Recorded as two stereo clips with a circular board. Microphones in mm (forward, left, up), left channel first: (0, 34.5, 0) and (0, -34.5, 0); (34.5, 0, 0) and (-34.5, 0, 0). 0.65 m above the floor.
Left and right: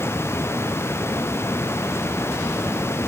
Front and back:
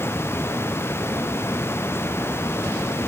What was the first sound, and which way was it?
Only background noise.